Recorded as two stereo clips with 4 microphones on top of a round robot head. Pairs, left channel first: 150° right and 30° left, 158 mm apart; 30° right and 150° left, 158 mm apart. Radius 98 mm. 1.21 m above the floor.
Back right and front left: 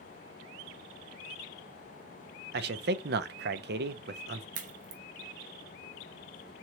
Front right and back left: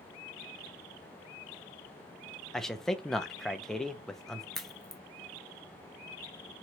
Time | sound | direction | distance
2.5 | a man speaking | 55° left | 0.5 m
4.5 | a crack | 55° left | 0.8 m